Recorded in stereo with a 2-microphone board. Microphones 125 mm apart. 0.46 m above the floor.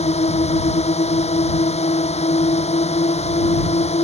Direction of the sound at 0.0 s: 60° left (ahead or behind).